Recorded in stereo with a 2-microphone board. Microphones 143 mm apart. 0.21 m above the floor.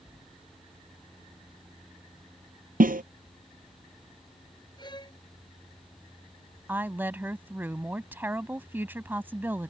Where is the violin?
30° left (ahead or behind).